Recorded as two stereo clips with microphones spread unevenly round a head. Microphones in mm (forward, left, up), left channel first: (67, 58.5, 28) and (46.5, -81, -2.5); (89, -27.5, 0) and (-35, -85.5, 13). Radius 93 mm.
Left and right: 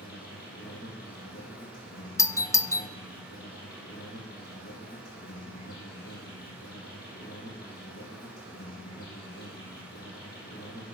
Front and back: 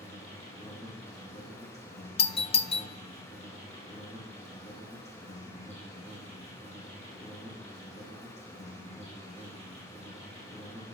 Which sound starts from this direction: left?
An insect, at 0.0 s.